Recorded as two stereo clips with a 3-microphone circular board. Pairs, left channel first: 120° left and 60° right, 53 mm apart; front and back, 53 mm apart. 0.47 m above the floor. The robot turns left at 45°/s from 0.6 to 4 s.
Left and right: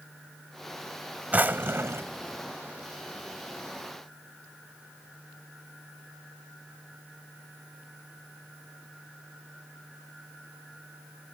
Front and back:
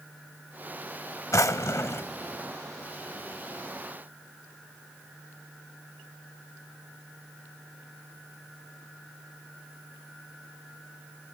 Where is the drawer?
Straight ahead; by 2.1 s 35° right.